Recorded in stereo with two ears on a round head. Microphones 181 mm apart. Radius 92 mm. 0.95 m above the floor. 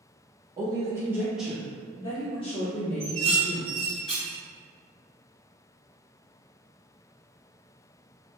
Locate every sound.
0.6 s a woman speaking: 20° right (ahead or behind), 0.9 m; by 4.0 s 40° left (ahead or behind), 1.4 m
3.0 s dishes clattering: 5° left (ahead or behind), 1.3 m